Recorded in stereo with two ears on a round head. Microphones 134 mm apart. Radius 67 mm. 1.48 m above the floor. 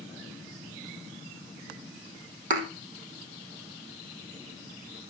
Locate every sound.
2.5 s a thud: 55° right (ahead or behind), 3 m